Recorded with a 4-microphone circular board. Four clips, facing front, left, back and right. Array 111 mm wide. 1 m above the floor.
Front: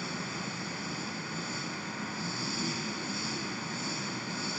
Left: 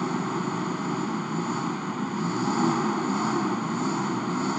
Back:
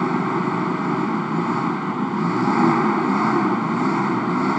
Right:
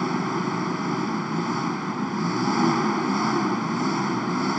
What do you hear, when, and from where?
0.0 s an engine running: 170° right